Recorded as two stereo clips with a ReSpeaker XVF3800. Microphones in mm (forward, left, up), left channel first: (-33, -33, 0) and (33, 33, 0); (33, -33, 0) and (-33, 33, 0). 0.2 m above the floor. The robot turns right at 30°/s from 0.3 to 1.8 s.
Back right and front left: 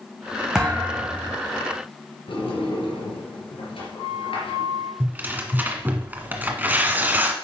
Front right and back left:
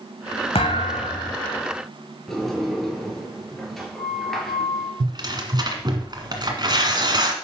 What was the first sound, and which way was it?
A thud, 40° right.